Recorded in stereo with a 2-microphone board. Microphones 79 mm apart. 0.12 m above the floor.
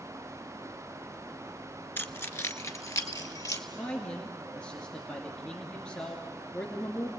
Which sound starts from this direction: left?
Keys jangling, at 2.0 s.